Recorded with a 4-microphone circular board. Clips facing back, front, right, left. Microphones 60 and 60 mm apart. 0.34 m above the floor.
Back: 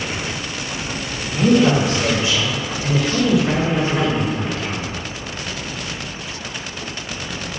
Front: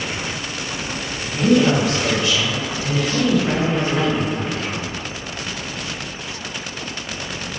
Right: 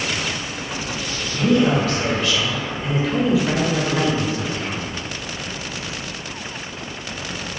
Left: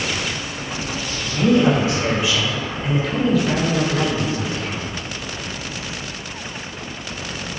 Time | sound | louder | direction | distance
1.2 | a man speaking | back 1 dB, left 2 dB | 135° left | 1.5 m